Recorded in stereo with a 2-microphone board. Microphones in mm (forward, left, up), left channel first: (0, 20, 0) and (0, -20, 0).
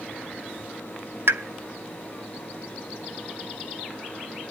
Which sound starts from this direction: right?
A pop, at 1.3 s.